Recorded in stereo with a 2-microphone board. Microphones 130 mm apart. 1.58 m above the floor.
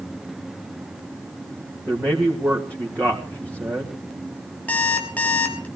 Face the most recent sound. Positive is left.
turn(degrees=10)  # may be behind; listen again after turning